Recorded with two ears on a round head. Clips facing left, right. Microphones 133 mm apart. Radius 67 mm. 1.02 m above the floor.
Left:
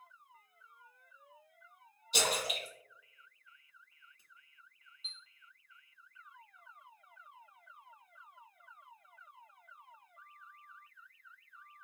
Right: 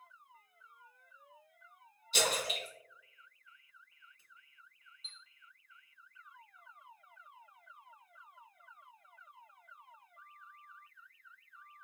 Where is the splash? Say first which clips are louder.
Even; 15° left (ahead or behind), 1.5 m.